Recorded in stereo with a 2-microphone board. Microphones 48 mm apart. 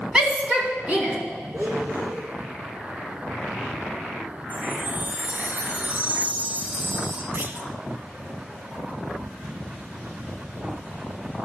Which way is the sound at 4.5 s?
35° right (ahead or behind).